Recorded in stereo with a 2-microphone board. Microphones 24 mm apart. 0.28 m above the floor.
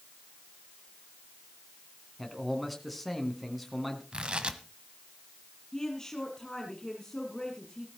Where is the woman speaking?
25° left (ahead or behind), 5.5 m.